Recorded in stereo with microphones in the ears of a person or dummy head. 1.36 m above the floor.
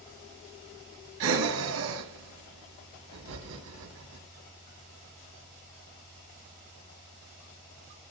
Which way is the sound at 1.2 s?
75° right (ahead or behind).